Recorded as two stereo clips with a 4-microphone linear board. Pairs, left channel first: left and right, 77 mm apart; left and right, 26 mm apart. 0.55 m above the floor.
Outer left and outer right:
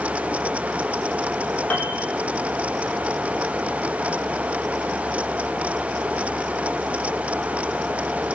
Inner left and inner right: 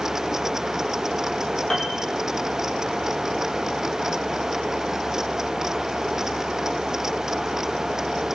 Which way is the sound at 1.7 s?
20° left (ahead or behind).